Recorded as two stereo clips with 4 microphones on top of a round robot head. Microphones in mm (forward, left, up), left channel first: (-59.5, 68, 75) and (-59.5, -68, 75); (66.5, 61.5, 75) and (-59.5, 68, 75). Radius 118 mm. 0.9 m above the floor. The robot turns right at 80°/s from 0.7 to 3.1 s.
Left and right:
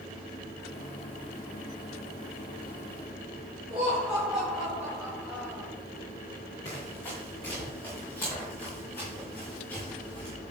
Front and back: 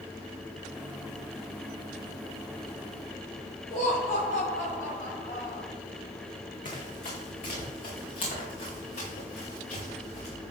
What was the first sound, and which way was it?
Laughter, 5° right.